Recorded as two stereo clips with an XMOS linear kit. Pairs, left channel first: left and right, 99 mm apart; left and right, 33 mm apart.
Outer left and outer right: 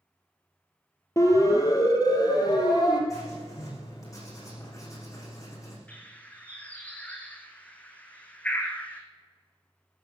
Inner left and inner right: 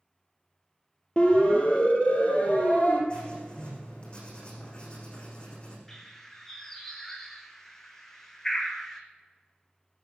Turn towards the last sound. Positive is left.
turn(degrees=10)  # may be behind; listen again after turning